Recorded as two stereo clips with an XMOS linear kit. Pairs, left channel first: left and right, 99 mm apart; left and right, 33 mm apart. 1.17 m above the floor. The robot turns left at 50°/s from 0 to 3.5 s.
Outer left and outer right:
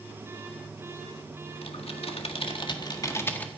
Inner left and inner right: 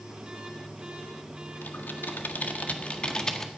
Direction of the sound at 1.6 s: 70° left (ahead or behind).